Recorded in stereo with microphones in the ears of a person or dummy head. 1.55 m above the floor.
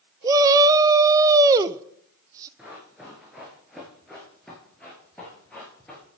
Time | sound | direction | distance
0.2 | a shout | 20° right (ahead or behind) | 0.5 m
2.6 | running footsteps | 5° right (ahead or behind) | 5 m